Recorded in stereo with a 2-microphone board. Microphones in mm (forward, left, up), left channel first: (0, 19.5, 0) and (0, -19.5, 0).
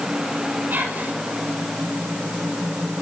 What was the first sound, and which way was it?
Whispering, 50° right (ahead or behind).